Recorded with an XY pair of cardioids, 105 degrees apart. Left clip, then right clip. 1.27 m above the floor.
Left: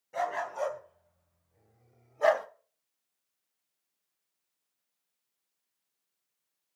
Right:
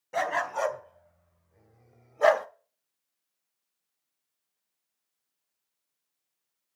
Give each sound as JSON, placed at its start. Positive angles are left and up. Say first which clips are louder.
{"t": 0.1, "sound": "a dog barking", "louder": "right 4 dB", "azimuth_deg": -60, "distance_m": 3.0}